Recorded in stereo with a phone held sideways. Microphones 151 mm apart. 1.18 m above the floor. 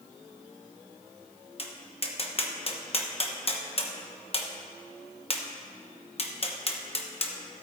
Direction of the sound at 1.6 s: 40° left (ahead or behind).